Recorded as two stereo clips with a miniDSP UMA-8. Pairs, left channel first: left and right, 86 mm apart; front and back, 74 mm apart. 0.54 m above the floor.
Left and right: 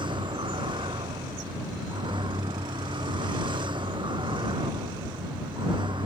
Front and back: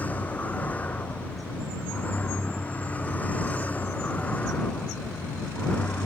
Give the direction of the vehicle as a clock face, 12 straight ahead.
2 o'clock.